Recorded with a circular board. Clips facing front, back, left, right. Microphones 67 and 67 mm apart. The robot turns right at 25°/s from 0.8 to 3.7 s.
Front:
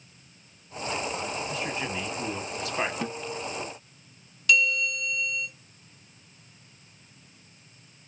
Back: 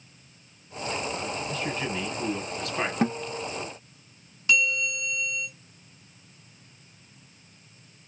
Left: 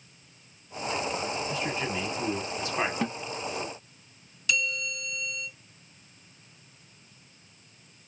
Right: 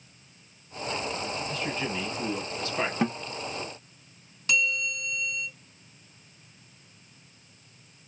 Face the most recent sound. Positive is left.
turn(degrees=-125)